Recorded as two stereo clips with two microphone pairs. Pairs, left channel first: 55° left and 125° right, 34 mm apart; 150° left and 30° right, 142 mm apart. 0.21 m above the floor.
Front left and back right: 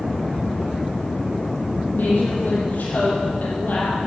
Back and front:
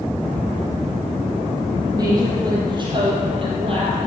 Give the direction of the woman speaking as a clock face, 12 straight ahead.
11 o'clock.